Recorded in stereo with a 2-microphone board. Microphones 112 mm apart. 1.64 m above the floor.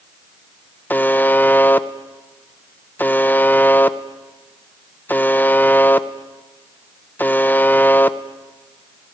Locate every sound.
0.9 s a buzzer: 15° left (ahead or behind), 0.8 m